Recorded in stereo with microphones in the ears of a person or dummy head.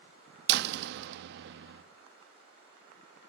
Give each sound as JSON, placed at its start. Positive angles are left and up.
{"t": 0.5, "sound": "a door slam", "side_deg": -60, "distance_m": 1.0}